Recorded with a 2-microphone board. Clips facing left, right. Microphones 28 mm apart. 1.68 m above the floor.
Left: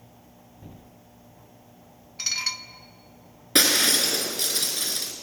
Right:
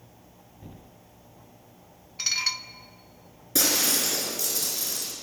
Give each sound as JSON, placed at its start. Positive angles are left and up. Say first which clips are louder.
{"t": 2.2, "sound": "dishes clattering", "louder": "right 1 dB", "side_deg": -10, "distance_m": 0.9}
{"t": 3.5, "sound": "breaking glass", "louder": "left 5 dB", "side_deg": 55, "distance_m": 4.0}